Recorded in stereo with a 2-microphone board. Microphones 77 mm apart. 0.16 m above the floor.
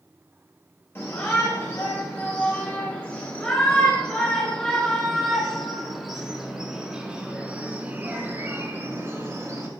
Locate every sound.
0.9 s a shout: 30° left (ahead or behind), 4 m; by 9.7 s 40° right (ahead or behind), 2.5 m